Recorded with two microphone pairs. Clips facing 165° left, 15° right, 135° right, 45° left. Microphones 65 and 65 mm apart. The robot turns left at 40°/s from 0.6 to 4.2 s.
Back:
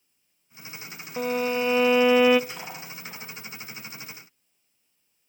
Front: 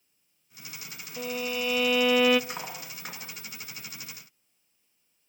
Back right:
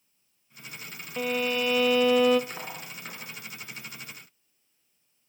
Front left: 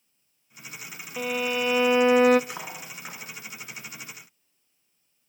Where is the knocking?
No knocking in this recording.